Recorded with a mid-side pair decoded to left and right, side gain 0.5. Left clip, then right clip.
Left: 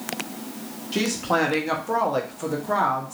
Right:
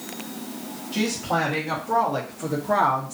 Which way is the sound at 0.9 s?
50° left.